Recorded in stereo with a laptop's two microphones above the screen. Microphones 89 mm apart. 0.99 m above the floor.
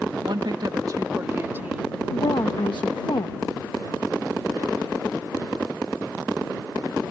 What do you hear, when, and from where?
0.2 s a woman speaking: 65° right (ahead or behind); by 2.0 s 15° right (ahead or behind)
2.1 s a woman speaking: 65° left (ahead or behind)